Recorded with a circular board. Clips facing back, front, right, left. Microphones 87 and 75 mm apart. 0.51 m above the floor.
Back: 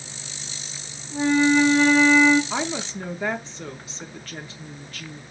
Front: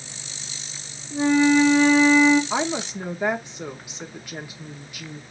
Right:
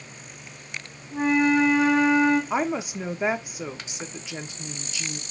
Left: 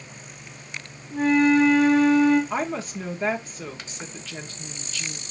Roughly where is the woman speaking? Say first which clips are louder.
Front 2 dB, right 2 dB; ahead right.